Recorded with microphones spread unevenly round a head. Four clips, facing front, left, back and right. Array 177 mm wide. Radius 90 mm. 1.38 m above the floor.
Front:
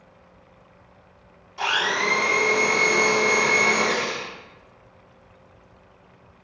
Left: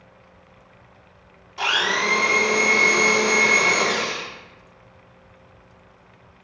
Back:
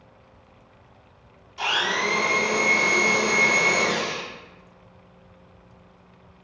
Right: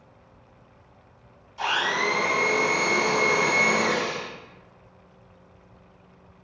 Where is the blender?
75° left, 1.8 m.